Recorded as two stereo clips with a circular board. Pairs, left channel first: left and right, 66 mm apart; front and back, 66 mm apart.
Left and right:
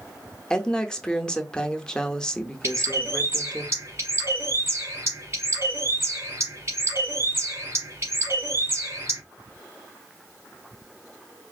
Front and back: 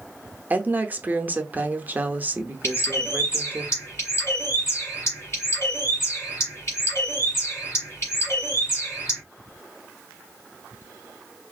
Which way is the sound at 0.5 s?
155° left.